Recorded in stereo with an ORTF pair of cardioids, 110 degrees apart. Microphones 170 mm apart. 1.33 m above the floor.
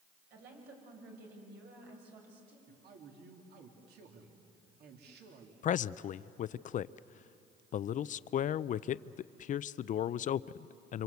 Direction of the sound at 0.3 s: 70° right.